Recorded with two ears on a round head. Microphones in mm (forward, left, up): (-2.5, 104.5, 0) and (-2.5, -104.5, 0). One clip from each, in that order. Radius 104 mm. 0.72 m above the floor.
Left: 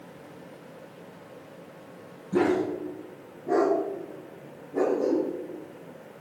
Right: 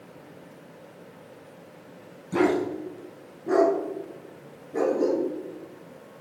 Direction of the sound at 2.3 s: 65° right (ahead or behind).